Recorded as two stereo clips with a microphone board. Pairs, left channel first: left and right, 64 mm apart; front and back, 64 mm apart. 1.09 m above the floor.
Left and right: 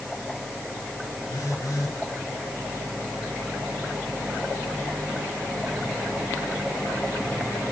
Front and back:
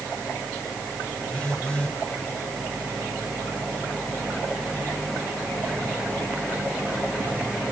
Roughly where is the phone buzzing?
Left.